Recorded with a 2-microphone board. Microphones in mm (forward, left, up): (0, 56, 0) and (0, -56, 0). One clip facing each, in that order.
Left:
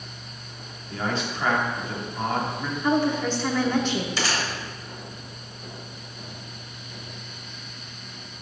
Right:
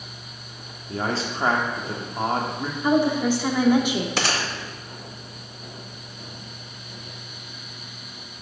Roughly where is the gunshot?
Right.